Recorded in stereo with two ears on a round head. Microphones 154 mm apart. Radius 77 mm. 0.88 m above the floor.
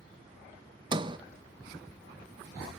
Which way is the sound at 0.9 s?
25° right (ahead or behind).